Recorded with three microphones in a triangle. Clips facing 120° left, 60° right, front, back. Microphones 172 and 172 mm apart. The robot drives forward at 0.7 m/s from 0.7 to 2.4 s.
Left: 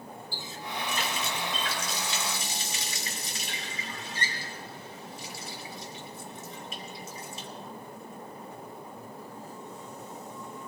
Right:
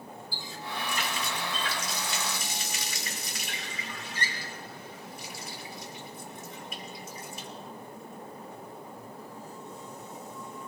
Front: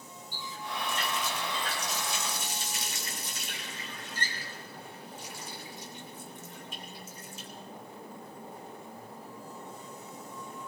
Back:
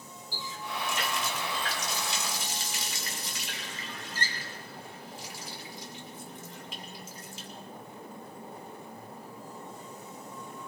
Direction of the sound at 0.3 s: 175° right.